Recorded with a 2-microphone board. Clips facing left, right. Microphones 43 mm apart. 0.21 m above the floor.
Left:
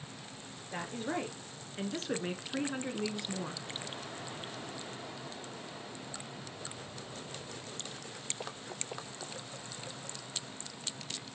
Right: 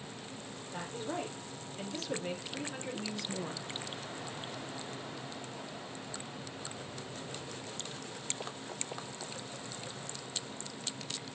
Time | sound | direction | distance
0.7 | a woman speaking | 55° left (ahead or behind) | 3.5 m